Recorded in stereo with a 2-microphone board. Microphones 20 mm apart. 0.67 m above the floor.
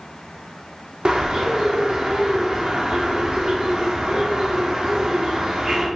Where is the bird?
45° right (ahead or behind), 1.3 m.